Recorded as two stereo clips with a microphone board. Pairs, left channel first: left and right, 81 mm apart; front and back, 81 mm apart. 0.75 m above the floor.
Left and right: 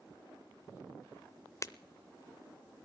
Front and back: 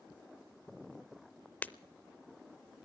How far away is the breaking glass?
About 0.5 m.